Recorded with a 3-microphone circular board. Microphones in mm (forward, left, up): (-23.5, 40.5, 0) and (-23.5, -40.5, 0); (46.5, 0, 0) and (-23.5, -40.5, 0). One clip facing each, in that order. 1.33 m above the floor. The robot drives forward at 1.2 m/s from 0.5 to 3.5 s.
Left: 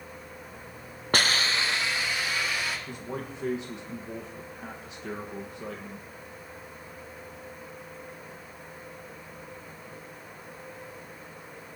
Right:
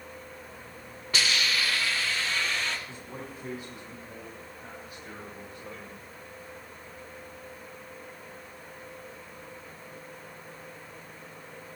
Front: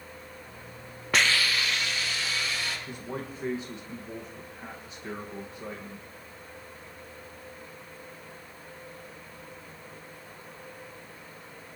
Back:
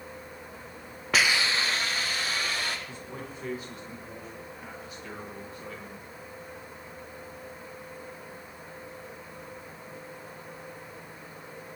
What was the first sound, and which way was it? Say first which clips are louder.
A hiss: left 3 dB, even; 120° left.